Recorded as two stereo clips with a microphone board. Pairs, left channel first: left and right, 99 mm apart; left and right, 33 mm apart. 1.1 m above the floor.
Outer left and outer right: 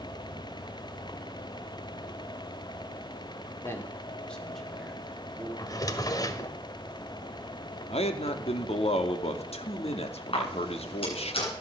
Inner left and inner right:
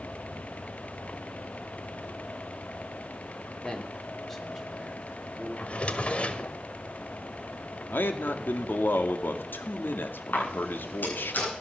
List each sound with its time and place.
3.6 s a man speaking: 25° left (ahead or behind), 3.5 m; by 5.5 s 15° right (ahead or behind), 4 m
5.6 s a drawer: 40° left (ahead or behind), 1.6 m
7.9 s a man speaking: 80° left, 2 m
10.3 s a camera shutter: 65° left (ahead or behind), 10 m